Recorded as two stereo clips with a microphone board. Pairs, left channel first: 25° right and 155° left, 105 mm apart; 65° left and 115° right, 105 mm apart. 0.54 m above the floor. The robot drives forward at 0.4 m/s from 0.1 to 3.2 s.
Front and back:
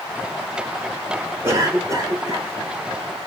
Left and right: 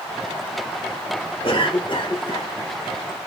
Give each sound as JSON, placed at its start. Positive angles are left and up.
{"t": 1.4, "sound": "a cough", "azimuth_deg": 100, "distance_m": 2.5}